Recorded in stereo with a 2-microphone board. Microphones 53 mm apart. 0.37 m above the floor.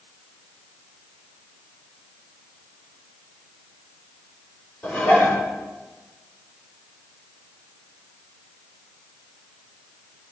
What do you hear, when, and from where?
4.8 s dishes clattering: 30° left (ahead or behind), 9 m